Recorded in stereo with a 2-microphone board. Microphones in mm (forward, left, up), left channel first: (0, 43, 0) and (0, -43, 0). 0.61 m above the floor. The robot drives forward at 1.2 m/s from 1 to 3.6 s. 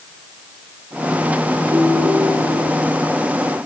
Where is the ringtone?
40° right (ahead or behind), 10 m; by 2.6 s 45° right (ahead or behind), 9 m.